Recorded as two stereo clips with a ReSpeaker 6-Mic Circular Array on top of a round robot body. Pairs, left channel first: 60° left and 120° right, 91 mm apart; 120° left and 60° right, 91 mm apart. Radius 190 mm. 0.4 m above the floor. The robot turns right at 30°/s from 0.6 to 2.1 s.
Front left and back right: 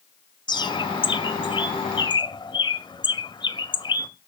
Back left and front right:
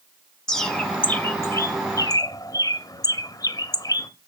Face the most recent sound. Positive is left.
turn(degrees=85)